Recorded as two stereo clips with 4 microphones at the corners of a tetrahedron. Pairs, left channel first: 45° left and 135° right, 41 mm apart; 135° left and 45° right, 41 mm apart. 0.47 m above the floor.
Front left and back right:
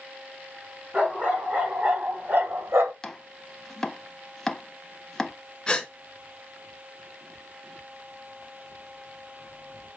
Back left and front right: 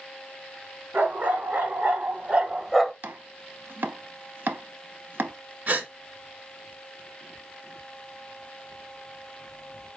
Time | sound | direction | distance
0.9 | a dog barking | 70° right | 1.8 m
3.0 | chopping | 35° right | 0.5 m
5.7 | a gasp | 25° right | 1.7 m